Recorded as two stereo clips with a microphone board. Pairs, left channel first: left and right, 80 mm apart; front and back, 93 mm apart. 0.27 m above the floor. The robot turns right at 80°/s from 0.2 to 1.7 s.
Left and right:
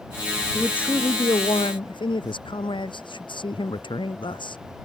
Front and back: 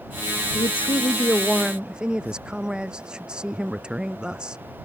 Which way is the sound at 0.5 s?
5° left.